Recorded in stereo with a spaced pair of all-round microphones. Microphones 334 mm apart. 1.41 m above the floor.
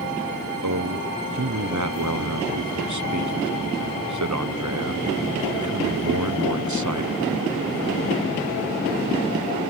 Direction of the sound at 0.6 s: 60° right (ahead or behind).